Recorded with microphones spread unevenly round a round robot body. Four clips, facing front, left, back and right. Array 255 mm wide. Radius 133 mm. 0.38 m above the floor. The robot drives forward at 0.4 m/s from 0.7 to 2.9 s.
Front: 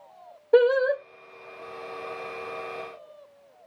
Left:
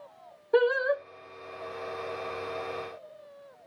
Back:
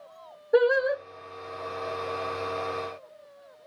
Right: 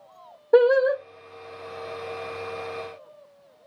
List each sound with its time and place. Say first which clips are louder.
0.5 s singing: right 7 dB, front 3 dB; 70° right, 1.7 m